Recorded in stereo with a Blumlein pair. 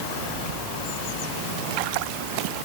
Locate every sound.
Only background noise.